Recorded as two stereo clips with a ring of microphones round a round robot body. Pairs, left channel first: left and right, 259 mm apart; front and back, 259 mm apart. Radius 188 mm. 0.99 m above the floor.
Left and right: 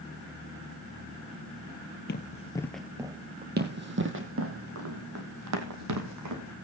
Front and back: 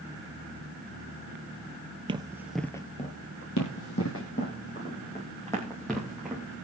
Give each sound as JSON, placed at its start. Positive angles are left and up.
{"t": 2.1, "sound": "running footsteps", "azimuth_deg": 120, "distance_m": 1.2}
{"t": 3.6, "sound": "running footsteps", "azimuth_deg": -40, "distance_m": 2.0}